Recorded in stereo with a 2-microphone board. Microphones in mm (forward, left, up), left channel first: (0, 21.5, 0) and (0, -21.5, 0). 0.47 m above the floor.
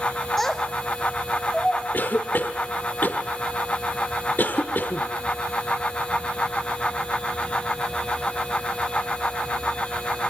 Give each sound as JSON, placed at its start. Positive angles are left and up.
{"t": 0.4, "sound": "a child speaking", "side_deg": 5, "distance_m": 1.8}
{"t": 1.9, "sound": "a cough", "side_deg": 45, "distance_m": 1.3}